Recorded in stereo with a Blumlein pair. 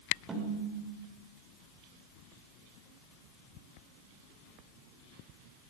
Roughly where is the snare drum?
Ahead.